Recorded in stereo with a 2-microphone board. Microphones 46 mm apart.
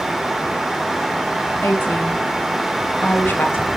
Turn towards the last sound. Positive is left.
turn(degrees=55)  # may be behind; listen again after turning